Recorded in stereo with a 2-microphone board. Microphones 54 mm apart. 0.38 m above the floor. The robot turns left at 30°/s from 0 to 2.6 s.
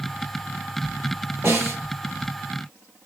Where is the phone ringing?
I don't hear a phone ringing.